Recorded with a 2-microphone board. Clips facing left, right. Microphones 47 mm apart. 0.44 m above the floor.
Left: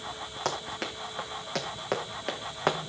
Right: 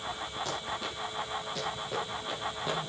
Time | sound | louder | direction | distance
0.5 | running footsteps | left 6 dB | 70° left (ahead or behind) | 5.5 m